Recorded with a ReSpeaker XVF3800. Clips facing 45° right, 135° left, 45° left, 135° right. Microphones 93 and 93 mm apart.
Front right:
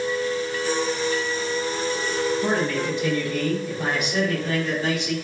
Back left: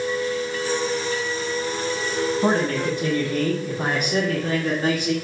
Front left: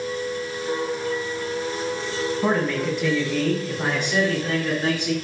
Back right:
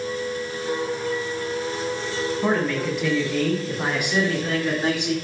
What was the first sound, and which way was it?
A man speaking, 130° left.